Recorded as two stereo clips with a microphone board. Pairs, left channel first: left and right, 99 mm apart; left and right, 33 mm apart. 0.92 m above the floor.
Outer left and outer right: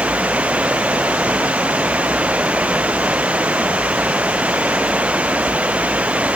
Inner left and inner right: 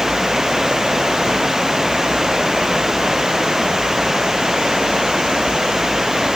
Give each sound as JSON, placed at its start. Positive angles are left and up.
{"t": 0.0, "sound": "running water", "side_deg": -10}